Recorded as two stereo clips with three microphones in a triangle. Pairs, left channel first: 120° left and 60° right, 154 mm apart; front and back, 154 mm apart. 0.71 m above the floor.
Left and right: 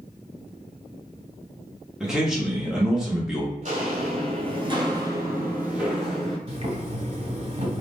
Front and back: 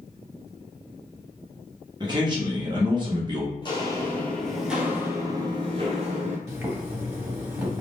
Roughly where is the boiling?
Right.